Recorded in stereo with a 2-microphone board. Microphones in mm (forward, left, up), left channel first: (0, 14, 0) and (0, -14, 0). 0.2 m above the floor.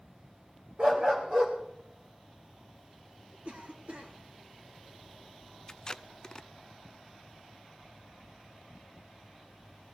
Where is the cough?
60° right (ahead or behind), 3.5 m.